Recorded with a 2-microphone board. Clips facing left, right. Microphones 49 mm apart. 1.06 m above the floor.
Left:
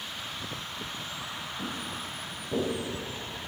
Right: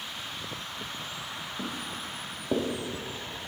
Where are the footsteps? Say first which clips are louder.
Right 1 dB; 60° right (ahead or behind), 4 m; by 2.7 s 70° right (ahead or behind), 3.5 m.